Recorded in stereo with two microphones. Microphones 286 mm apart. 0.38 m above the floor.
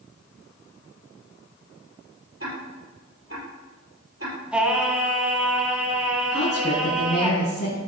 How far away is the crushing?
No crushing in this recording.